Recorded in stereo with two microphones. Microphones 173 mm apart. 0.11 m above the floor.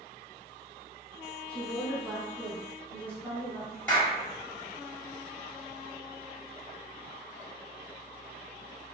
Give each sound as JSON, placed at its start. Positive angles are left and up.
{"t": 1.5, "sound": "a woman speaking", "side_deg": 5, "distance_m": 1.2}
{"t": 3.9, "sound": "a clap", "side_deg": 10, "distance_m": 1.9}